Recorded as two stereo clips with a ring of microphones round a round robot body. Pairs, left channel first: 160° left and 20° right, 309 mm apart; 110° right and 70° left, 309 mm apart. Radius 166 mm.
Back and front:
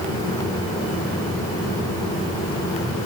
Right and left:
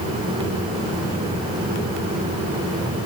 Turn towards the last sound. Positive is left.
No sound to turn to.